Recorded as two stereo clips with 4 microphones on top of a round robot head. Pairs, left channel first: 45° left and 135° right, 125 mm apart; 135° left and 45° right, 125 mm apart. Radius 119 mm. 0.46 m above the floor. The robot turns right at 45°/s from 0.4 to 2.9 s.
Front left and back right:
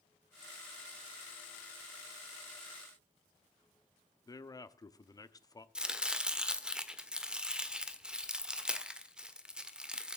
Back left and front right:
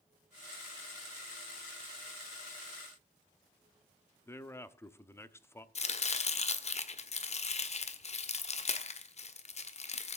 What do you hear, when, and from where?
4.3 s a man speaking: 80° left, 1.3 m
5.8 s chopping: 140° left, 1.8 m